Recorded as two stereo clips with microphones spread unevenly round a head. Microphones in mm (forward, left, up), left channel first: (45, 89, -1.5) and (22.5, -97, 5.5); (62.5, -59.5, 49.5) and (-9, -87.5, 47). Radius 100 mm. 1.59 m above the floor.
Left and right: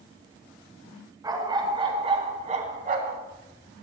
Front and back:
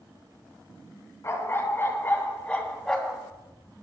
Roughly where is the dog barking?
Ahead right.